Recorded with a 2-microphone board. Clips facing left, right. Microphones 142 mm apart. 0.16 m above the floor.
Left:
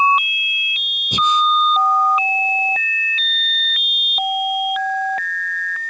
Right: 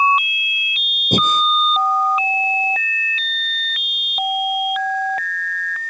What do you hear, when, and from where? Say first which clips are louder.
1.1 s breathing: even; 50° right (ahead or behind)